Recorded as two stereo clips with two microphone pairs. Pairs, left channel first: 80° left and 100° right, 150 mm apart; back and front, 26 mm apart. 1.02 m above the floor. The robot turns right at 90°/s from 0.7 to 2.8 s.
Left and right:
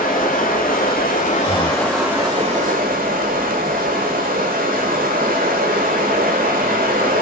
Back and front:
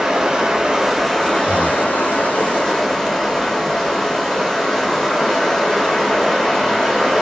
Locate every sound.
0.0 s running water: 55° left, 6 m; by 7.2 s 115° right, 6 m
1.4 s breathing: 30° right, 4 m; by 1.9 s 20° left, 4 m